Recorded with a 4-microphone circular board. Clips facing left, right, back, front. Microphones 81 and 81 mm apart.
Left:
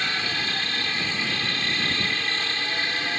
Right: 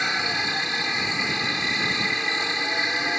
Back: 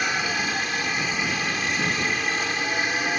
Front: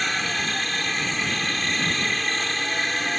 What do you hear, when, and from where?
0.0 s a helicopter: 115° right